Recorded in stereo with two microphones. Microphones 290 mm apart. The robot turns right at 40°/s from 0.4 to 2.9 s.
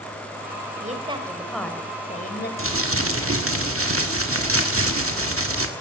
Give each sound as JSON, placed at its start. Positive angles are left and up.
{"t": 0.8, "sound": "a woman speaking", "azimuth_deg": -30, "distance_m": 2.5}
{"t": 2.6, "sound": "crumpling", "side_deg": -45, "distance_m": 1.7}